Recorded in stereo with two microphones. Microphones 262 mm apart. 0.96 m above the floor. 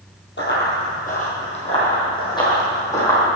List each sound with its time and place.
0.4 s running footsteps: 45° left (ahead or behind), 1.9 m; by 3.4 s 10° left (ahead or behind), 3 m